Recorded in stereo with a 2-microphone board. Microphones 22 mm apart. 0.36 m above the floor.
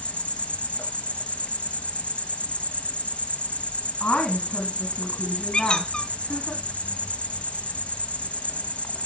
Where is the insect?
75° left (ahead or behind), 0.9 m.